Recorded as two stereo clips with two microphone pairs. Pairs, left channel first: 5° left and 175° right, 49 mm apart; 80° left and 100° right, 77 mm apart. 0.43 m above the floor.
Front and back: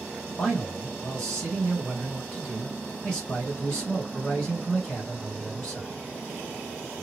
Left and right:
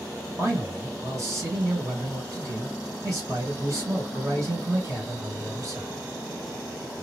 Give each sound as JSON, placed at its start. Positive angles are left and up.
{"t": 0.4, "sound": "a man speaking", "azimuth_deg": -60, "distance_m": 2.0}